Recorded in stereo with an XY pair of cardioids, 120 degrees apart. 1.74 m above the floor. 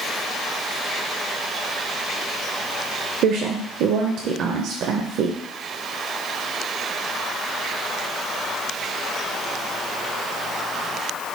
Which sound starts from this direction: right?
A woman speaking, at 3.2 s.